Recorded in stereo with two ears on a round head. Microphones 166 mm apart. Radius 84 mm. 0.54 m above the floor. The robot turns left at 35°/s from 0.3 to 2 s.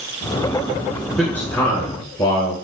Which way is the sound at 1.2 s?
5° left (ahead or behind).